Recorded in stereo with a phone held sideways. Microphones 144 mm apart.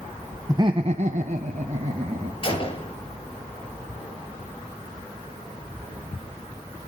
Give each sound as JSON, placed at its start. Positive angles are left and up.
{"t": 0.5, "sound": "laughter", "side_deg": -20, "distance_m": 0.9}
{"t": 2.4, "sound": "a gunshot", "side_deg": 35, "distance_m": 4.5}